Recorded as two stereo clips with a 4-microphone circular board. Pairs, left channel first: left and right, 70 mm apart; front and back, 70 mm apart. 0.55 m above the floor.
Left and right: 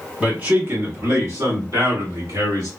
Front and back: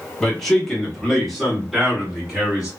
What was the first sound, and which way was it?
A man speaking, 65° right.